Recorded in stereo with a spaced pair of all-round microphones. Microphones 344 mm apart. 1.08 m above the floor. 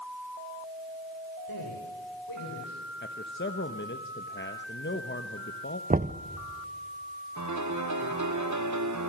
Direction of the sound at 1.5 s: 80° left.